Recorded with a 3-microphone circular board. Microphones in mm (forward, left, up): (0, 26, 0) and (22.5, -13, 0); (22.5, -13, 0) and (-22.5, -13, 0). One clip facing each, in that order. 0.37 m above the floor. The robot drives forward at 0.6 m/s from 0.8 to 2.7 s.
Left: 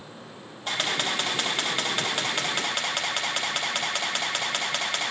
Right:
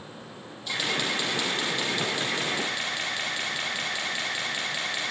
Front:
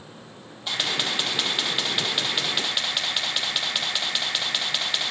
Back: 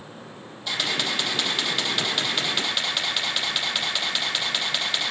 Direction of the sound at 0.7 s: 70° left.